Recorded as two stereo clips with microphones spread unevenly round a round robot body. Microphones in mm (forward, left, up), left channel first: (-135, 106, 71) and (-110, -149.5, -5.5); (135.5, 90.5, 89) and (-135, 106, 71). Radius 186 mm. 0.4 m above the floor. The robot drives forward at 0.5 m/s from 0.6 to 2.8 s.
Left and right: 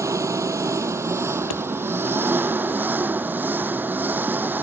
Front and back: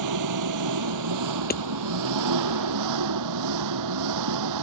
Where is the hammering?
50° left.